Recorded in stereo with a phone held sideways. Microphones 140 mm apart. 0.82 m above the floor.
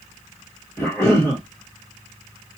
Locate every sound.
0.8 s a cough: 15° left (ahead or behind), 2.5 m